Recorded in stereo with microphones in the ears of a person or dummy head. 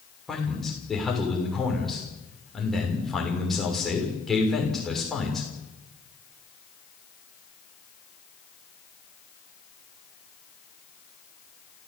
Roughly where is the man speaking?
Centre.